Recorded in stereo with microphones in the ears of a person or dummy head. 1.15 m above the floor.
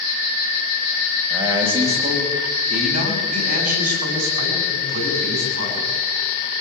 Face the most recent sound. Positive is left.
turn(degrees=-50)  # may be behind; listen again after turning